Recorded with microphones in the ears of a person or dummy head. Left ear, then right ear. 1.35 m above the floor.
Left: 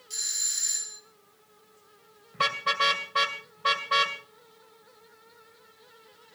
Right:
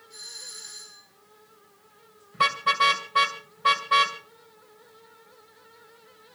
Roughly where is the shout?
No shout in this recording.